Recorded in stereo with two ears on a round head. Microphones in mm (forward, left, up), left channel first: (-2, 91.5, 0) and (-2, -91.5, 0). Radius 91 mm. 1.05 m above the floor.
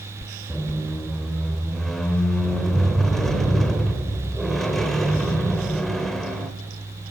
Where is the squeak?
Centre (ahead or behind), 0.8 m.